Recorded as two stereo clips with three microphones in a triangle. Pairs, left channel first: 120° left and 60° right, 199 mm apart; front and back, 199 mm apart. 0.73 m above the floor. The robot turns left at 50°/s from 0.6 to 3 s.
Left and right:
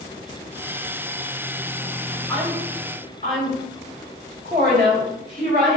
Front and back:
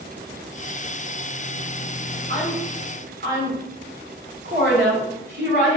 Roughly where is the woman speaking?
Behind right.